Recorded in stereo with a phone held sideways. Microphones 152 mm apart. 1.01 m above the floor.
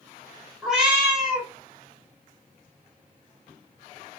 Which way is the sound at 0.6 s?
5° right (ahead or behind).